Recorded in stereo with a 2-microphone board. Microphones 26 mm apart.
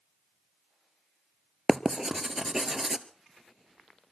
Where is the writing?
25° right (ahead or behind), 1.0 m.